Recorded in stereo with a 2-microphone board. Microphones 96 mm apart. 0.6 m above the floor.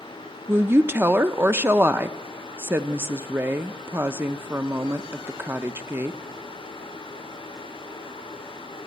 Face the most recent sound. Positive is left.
turn(degrees=-25)  # may be behind; listen again after turning